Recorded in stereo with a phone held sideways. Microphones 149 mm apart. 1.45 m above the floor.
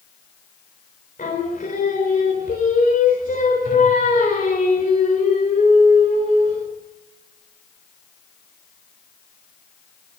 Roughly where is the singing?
Left.